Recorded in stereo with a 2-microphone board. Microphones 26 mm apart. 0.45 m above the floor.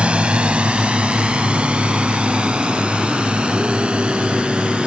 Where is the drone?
50° right (ahead or behind).